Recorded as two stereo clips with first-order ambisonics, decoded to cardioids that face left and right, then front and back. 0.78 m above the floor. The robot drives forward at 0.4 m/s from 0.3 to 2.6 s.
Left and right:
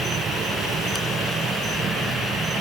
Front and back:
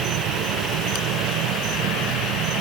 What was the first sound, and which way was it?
An insect, 155° right.